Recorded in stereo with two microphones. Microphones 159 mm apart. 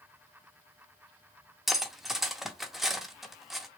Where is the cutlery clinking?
Centre (ahead or behind), 0.6 m.